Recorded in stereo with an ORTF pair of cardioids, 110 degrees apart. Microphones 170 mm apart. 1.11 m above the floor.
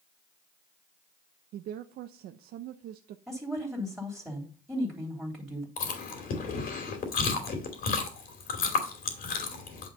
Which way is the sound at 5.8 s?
60° left.